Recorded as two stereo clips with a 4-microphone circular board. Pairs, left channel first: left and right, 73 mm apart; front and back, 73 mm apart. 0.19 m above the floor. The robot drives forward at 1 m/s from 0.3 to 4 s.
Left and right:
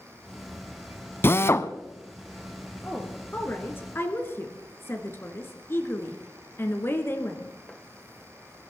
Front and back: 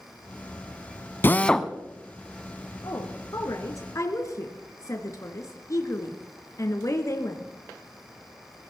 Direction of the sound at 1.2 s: 45° left.